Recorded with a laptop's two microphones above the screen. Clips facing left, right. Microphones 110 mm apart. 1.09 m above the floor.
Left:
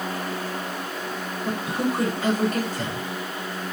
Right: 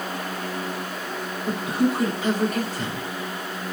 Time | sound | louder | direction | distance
1.4 | a man speaking | right 3 dB | 45° left (ahead or behind) | 2.5 m